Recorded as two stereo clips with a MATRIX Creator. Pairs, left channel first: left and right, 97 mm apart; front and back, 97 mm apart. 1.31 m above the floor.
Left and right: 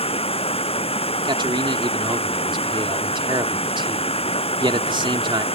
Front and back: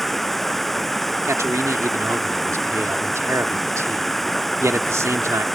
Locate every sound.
0.0 s running water: 90° left
1.2 s a man speaking: 120° right